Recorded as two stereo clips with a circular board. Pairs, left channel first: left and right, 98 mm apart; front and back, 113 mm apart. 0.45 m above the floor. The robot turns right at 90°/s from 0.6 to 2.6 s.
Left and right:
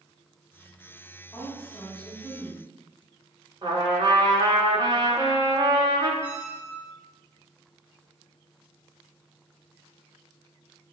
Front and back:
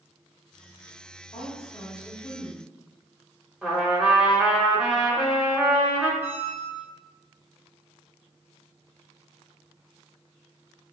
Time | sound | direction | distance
1.3 | a woman speaking | 40° left | 3 m
3.6 | a trumpet | 95° right | 2.0 m
6.2 | a squeak | 150° right | 2 m